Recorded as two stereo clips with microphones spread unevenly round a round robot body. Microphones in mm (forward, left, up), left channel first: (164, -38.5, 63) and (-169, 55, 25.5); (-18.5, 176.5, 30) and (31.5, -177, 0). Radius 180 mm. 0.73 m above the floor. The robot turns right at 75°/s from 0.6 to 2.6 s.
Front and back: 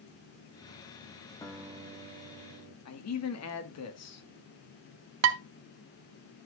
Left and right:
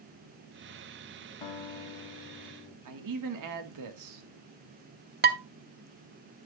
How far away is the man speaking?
About 1.6 m.